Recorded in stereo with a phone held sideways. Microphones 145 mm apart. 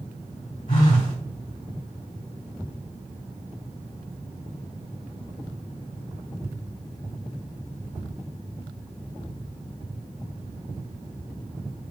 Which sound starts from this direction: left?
A phone buzzing, at 0.7 s.